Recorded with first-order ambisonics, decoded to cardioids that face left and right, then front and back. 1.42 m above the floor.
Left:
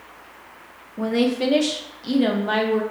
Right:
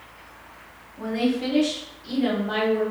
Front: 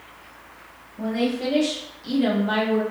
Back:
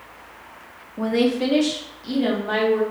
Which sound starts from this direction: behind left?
A woman speaking, at 1.0 s.